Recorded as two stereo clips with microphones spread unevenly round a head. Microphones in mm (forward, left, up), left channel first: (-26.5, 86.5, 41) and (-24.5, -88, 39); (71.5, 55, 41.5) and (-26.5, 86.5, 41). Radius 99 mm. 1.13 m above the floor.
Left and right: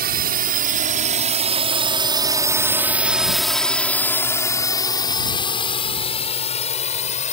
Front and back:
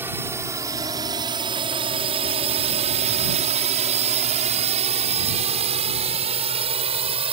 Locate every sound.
0.0 s a drone: 120° right; by 7.3 s 140° left